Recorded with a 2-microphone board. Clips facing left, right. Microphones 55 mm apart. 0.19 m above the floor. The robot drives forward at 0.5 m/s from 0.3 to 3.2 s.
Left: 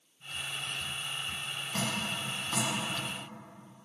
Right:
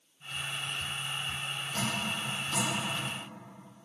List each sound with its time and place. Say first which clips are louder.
1.7 s dripping: even; 35° left (ahead or behind), 1.5 m